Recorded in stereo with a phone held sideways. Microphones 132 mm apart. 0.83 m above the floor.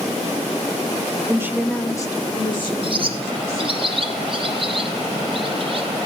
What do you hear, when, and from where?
1.3 s a woman speaking: 30° right (ahead or behind), 0.7 m; by 3.8 s 50° left (ahead or behind), 3.5 m
2.8 s a bird: 40° right (ahead or behind), 0.8 m